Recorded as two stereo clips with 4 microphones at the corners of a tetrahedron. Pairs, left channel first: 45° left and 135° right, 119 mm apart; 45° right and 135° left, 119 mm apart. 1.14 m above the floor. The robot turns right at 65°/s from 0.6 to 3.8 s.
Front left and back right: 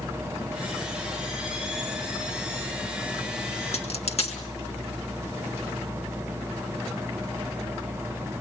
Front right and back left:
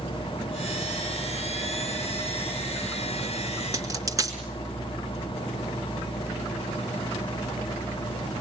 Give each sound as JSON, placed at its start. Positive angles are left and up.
{"t": 3.7, "sound": "a dropped coin", "azimuth_deg": 70, "distance_m": 3.5}